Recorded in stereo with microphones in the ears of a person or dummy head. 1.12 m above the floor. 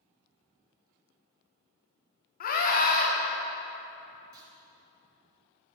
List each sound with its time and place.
2.4 s a scream: 45° left (ahead or behind), 2.5 m
4.3 s a clunk: 20° right (ahead or behind), 4 m